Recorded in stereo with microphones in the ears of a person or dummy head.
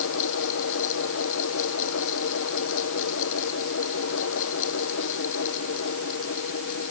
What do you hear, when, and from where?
0.0 s a fan: 70° left (ahead or behind)